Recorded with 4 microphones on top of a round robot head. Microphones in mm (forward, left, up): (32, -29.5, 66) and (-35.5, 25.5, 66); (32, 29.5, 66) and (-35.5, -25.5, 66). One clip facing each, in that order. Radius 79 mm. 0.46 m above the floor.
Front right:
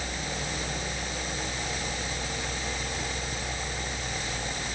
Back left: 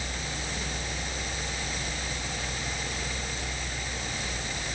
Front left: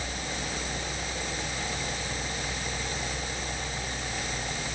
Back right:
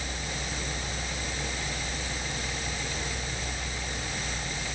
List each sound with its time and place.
Only background noise.